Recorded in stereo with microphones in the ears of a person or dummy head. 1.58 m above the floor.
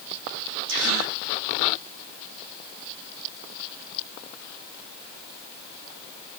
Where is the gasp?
70° right (ahead or behind), 3.5 m.